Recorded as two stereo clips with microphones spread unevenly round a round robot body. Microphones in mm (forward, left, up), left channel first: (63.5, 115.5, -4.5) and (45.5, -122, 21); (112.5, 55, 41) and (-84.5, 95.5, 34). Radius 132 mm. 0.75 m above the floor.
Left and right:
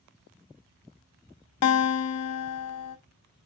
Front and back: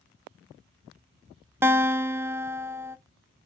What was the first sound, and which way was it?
A guitar, 90° left.